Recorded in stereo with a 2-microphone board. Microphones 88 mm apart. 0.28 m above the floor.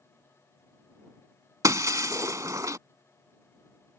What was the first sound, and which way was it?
Breaking glass, 40° right (ahead or behind).